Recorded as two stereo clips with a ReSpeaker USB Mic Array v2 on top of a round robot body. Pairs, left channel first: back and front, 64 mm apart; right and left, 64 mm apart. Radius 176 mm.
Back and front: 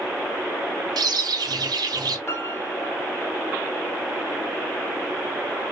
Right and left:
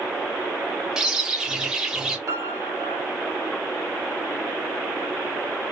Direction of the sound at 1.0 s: 10° left.